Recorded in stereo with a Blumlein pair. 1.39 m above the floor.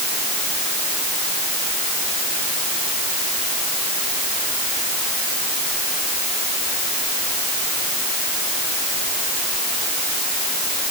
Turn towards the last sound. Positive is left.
No sound to turn to.